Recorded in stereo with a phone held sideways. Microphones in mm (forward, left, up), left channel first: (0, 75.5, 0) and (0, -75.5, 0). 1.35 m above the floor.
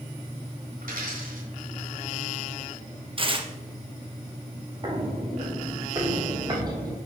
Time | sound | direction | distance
0.8 | a dropped coin | 65° right (ahead or behind) | 2.5 m
3.2 | tearing paper | 35° right (ahead or behind) | 0.8 m
4.8 | footsteps | 30° right (ahead or behind) | 1.5 m